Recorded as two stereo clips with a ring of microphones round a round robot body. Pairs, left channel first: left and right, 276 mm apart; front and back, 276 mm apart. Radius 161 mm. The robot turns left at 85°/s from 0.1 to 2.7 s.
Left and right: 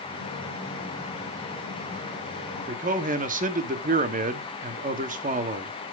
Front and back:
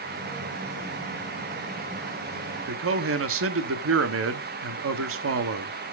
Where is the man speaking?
145° right, 0.9 m; by 5.7 s 150° right, 0.9 m.